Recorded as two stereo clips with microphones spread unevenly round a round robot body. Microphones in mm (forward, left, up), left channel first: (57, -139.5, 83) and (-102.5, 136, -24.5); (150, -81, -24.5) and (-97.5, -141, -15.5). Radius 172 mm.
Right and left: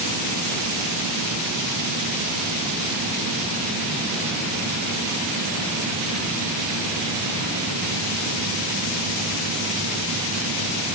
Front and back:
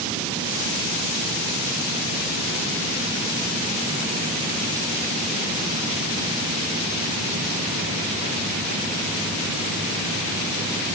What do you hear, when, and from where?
Only background noise.